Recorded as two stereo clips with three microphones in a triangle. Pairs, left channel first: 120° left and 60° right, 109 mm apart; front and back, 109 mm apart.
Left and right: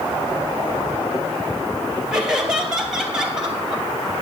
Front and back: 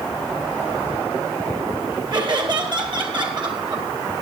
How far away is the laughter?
About 3 m.